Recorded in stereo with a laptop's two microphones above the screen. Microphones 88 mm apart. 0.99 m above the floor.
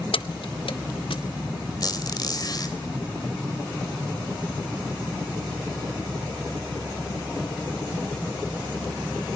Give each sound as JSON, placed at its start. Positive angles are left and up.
{"t": 0.1, "sound": "keys jangling", "side_deg": 80, "distance_m": 0.8}
{"t": 1.8, "sound": "a squeak", "side_deg": 50, "distance_m": 3.5}